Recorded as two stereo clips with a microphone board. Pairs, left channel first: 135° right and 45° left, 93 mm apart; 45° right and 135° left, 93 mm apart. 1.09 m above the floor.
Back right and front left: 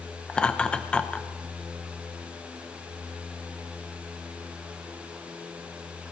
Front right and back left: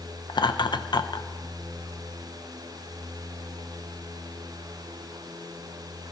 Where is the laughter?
60° right, 0.7 m.